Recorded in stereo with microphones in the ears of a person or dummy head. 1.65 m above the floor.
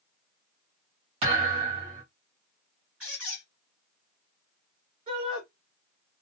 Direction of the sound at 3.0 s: 5° right (ahead or behind).